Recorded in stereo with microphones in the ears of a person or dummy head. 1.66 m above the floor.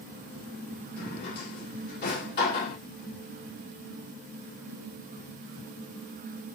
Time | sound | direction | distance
1.0 | a drawer | 55° left (ahead or behind) | 2 m